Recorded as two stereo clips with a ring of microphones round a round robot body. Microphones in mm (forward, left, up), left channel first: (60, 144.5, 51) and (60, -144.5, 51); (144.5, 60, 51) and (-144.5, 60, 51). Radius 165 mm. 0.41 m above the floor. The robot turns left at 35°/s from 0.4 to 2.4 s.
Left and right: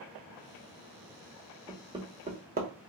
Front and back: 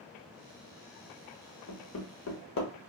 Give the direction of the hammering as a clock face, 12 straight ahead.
12 o'clock.